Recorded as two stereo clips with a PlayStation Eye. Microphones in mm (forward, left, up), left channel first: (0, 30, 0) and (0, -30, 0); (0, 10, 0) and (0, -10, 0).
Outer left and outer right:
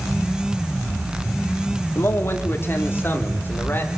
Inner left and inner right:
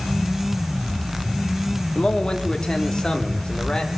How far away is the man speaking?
About 2.5 m.